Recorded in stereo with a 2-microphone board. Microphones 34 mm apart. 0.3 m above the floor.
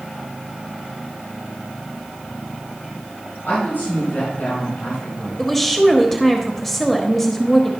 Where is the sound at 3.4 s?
75° left (ahead or behind), 4.5 m; by 5.5 s 50° left (ahead or behind), 2 m.